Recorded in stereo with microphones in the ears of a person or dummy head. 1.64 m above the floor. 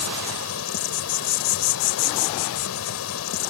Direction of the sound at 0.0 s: 85° left.